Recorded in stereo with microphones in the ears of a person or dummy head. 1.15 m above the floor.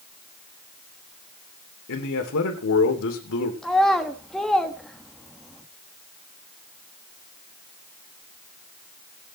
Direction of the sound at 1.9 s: 70° left (ahead or behind).